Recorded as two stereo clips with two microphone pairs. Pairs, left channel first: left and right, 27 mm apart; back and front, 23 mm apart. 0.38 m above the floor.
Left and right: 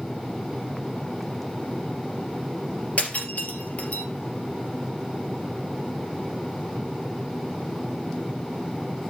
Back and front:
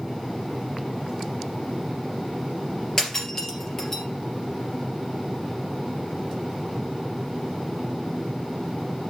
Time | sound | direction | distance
3.0 | breaking glass | 115° left | 2.5 m